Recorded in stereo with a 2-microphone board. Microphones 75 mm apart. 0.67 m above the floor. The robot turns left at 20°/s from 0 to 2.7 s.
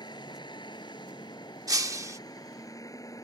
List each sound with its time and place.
0.0 s a vehicle: 105° left; by 3.2 s 50° left
1.7 s breaking glass: 50° right (ahead or behind); by 2.2 s 40° right (ahead or behind)